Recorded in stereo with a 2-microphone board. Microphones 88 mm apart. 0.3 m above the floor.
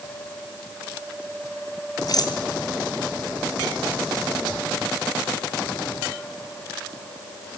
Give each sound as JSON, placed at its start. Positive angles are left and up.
{"t": 2.1, "sound": "a rattle", "side_deg": 50, "distance_m": 3.5}